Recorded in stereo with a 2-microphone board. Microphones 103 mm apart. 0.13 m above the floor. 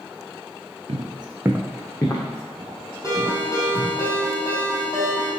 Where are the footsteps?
70° right (ahead or behind), 0.8 m; by 3.9 s 55° left (ahead or behind), 2.5 m.